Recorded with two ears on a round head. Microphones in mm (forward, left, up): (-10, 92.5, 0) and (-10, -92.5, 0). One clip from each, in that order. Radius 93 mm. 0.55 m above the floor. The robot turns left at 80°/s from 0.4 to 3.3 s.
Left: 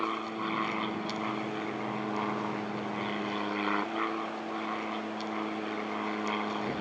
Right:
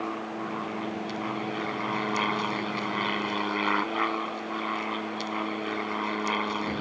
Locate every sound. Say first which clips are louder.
0.0 s an aircraft: even; 80° left; by 6.8 s 155° right